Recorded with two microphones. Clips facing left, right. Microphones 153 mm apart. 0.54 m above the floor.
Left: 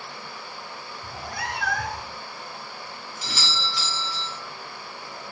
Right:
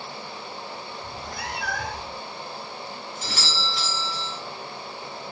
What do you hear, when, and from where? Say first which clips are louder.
1.0 s a cat meowing: left 4 dB; 60° left (ahead or behind), 1.5 m
3.2 s a doorbell: even; 50° right (ahead or behind), 3.5 m